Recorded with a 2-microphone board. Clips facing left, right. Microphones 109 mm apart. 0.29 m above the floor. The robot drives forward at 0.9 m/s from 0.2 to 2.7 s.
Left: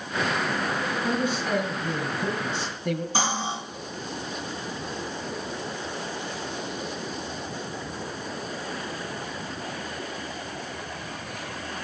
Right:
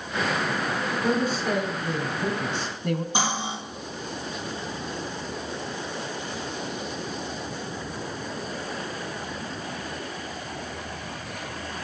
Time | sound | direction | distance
1.0 | a man speaking | 40° right (ahead or behind) | 3 m
3.1 | cutlery clinking | 20° right (ahead or behind) | 4.5 m